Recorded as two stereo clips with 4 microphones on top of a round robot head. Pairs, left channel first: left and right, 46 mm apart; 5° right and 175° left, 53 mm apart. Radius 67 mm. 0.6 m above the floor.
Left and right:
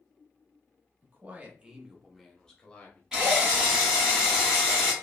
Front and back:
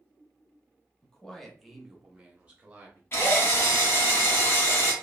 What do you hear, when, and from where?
1.0 s a man speaking: 80° right, 0.9 m; by 3.0 s 135° left, 0.9 m
3.1 s a drill: 20° right, 1.4 m